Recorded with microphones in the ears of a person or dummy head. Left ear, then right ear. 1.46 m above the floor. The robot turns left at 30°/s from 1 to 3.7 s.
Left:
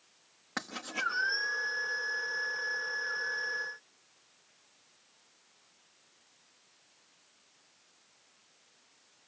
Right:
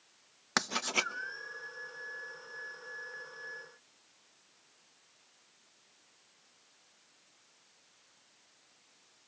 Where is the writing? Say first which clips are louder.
Right 5 dB; 60° right (ahead or behind), 1.0 m.